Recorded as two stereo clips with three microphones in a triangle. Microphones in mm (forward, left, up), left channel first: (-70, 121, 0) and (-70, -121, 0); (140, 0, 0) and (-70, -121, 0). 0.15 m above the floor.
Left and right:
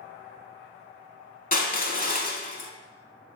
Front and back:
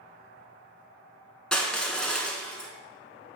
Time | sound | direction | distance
1.5 | crushing | 115° left | 0.6 m